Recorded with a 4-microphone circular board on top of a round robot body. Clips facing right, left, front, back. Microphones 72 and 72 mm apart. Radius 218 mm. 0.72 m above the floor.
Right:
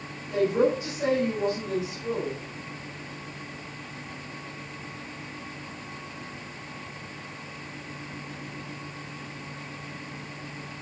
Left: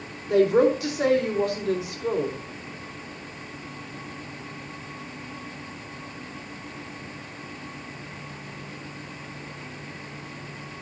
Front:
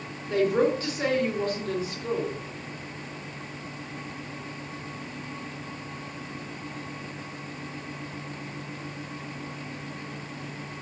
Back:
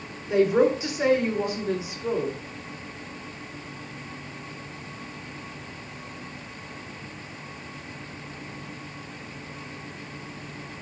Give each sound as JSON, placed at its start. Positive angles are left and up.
{"t": 0.3, "sound": "a woman speaking", "azimuth_deg": 100, "distance_m": 4.0}